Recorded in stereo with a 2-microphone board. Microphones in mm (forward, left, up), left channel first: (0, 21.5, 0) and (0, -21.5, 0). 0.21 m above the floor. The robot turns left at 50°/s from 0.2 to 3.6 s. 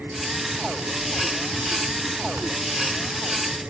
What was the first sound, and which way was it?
Only background noise.